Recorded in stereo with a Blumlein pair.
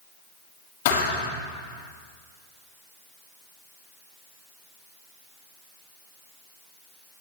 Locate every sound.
0.8 s a thud: 55° left, 7 m